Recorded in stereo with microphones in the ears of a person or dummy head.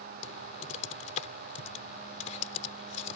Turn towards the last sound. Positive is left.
turn(degrees=50)  # may be behind; listen again after turning